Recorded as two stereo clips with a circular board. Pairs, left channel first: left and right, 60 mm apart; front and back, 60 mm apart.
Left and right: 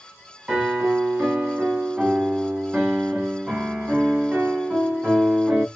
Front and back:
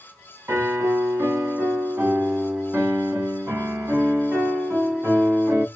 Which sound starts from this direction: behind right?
A piano, at 0.5 s.